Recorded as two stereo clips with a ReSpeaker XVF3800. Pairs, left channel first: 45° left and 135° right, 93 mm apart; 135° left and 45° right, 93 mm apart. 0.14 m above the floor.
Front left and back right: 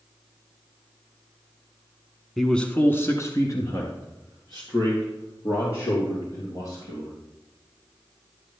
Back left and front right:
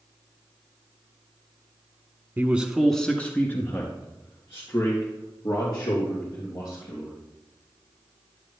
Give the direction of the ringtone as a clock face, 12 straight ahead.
I don't hear a ringtone.